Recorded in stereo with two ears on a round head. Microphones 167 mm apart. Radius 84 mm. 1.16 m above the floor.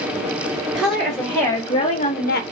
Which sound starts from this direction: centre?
A woman speaking, at 0.7 s.